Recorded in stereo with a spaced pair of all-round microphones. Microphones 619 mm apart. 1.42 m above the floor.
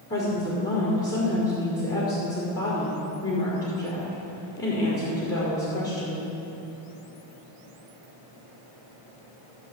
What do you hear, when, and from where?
0.1 s a woman speaking: 20° left (ahead or behind), 4 m